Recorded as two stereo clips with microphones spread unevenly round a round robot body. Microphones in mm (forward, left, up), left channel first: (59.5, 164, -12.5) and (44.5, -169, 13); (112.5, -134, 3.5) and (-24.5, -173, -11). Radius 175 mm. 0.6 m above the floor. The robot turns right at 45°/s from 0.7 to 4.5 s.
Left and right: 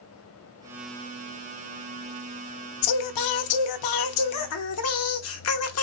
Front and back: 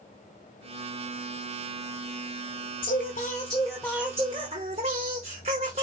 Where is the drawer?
No drawer in this recording.